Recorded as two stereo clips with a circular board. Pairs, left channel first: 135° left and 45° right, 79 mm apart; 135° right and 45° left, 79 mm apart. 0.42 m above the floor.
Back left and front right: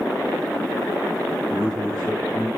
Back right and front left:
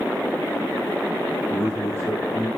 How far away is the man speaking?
About 4.5 m.